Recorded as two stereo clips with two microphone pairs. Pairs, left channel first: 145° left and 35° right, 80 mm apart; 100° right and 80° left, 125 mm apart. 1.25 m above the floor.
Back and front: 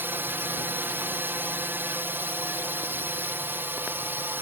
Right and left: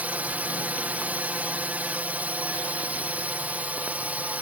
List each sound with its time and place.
0.0 s a drone: 10° left